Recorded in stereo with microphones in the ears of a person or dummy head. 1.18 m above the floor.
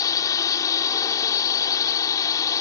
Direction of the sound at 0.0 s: 20° left (ahead or behind).